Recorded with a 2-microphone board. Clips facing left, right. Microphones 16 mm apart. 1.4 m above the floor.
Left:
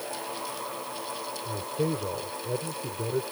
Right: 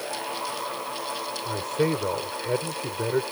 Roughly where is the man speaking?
Right.